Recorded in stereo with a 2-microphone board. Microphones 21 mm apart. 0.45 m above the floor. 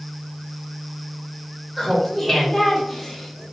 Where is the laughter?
5° right (ahead or behind), 1.2 m; by 3.4 s 5° left (ahead or behind), 2 m.